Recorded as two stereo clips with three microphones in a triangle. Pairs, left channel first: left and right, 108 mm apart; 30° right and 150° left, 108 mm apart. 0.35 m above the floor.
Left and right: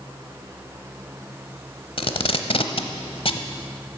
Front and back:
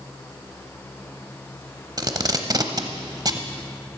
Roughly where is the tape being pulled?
Left.